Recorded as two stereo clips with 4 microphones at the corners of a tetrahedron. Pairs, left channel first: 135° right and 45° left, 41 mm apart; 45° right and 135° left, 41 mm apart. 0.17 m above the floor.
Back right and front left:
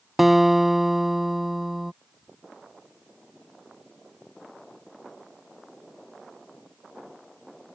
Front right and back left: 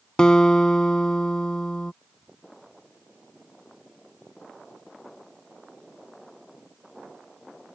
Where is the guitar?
25° right.